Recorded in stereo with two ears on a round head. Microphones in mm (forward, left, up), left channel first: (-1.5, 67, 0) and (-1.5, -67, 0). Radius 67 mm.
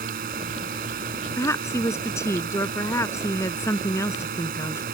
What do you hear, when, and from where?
0.0 s a drone: 65° right (ahead or behind)
1.4 s a woman speaking: 20° left (ahead or behind)